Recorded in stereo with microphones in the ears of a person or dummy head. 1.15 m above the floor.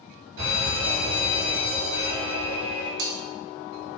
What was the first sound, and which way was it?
An alarm, 65° right (ahead or behind).